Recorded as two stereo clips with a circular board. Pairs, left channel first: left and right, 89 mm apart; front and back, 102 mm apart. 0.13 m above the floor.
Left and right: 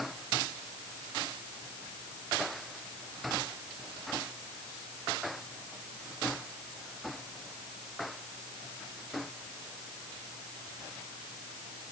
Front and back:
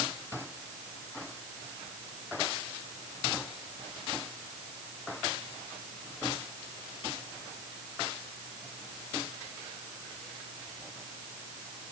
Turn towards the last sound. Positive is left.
No sound to turn to.